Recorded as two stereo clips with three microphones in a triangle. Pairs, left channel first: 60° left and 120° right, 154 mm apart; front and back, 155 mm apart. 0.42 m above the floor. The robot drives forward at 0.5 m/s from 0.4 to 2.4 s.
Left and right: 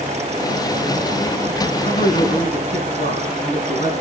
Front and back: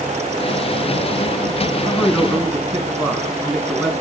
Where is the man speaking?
90° left, 4 m; by 3.9 s 95° left, 4 m.